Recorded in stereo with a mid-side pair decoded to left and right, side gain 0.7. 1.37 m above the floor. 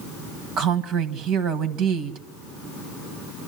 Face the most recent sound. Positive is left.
turn(degrees=-60)